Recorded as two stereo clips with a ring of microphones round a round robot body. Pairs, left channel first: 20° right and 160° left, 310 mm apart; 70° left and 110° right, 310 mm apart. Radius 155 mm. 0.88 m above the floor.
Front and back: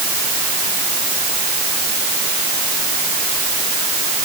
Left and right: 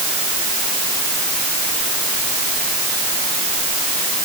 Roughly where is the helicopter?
I don't hear a helicopter.